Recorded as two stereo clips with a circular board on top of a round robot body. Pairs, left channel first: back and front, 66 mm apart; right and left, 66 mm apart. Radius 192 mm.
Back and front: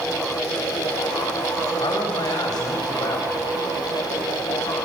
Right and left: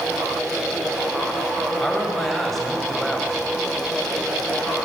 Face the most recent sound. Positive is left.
turn(degrees=-175)